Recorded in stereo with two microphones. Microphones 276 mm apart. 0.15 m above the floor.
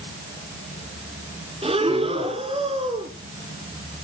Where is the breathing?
20° right (ahead or behind), 2.5 m.